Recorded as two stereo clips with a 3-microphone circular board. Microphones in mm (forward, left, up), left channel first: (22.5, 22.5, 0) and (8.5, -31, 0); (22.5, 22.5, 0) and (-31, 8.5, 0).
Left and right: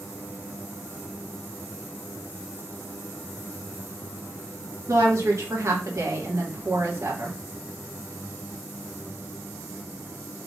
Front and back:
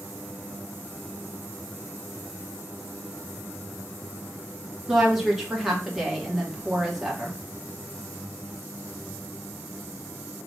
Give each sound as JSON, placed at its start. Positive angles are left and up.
{"t": 4.9, "sound": "a woman speaking", "azimuth_deg": -80, "distance_m": 2.5}